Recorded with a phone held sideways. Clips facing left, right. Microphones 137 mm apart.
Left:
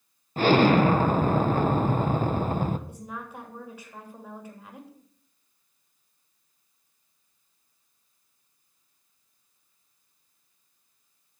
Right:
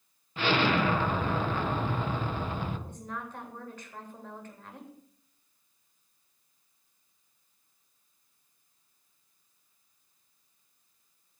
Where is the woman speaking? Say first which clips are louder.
Left 1 dB; 10° left (ahead or behind), 3 m.